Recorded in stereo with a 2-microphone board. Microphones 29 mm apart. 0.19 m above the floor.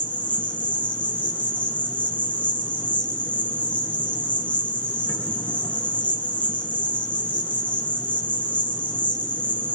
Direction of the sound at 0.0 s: 55° left (ahead or behind).